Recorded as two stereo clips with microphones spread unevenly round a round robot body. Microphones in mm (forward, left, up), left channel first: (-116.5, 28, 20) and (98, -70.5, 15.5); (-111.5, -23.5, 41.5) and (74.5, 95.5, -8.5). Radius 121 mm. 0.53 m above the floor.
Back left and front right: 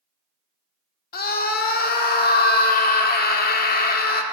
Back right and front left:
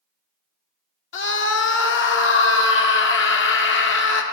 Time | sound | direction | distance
1.1 | a scream | 170° right | 1.7 m